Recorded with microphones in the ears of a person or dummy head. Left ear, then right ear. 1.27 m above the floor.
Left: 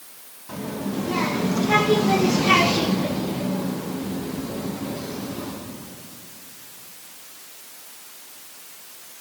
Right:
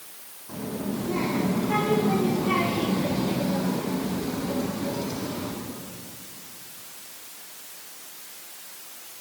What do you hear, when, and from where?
0.5 s a child speaking: 70° left (ahead or behind), 2.5 m; by 5.5 s 45° right (ahead or behind), 3 m